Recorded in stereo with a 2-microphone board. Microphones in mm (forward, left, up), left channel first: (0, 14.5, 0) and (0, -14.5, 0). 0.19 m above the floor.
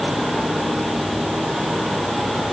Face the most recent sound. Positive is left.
No sound to turn to.